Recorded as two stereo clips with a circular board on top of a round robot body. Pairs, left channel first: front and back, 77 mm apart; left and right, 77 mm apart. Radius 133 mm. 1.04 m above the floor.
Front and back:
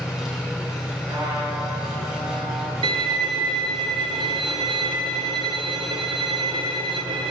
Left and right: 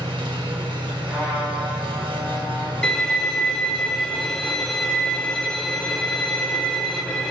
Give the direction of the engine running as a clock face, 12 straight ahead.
3 o'clock.